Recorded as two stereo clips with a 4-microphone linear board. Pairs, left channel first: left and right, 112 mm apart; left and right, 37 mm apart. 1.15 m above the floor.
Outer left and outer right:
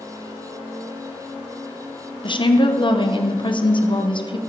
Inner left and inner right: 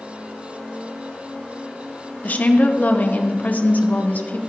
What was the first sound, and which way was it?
A woman speaking, 45° left (ahead or behind).